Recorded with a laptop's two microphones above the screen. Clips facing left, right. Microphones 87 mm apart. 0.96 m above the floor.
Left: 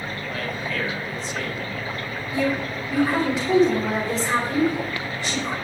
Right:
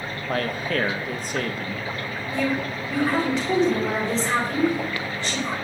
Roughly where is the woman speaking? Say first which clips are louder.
Left 1 dB; centre.